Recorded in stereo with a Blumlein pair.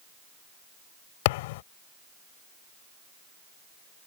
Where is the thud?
50° left.